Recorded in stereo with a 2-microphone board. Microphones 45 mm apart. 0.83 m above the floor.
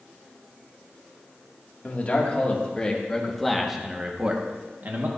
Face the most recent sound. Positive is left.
turn(degrees=-45)  # may be behind; listen again after turning